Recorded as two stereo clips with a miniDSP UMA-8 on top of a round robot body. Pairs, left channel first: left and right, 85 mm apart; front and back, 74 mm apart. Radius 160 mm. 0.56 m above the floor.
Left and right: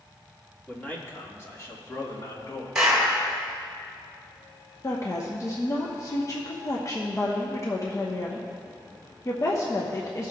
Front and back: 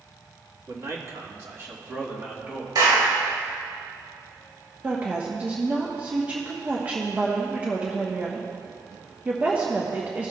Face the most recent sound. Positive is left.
turn(degrees=120)